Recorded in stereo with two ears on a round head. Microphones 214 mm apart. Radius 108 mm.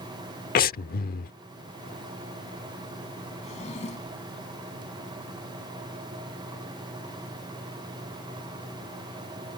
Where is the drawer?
30° left (ahead or behind).